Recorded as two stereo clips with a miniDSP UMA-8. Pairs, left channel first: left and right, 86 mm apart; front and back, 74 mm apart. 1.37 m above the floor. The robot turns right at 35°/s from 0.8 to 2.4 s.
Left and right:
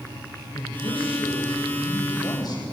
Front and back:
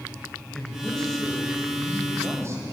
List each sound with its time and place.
0.5 s a man speaking: 75° left, 8.5 m; by 2.6 s 130° left, 8.5 m